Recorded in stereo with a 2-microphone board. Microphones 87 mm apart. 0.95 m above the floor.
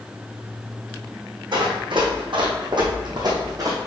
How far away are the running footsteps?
About 2.5 m.